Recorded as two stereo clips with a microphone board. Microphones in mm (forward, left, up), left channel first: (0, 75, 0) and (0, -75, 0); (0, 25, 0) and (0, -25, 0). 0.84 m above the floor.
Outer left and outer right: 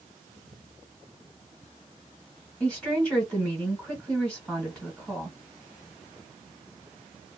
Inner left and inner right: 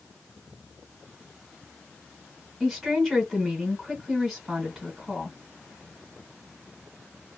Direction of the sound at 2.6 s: 5° left (ahead or behind).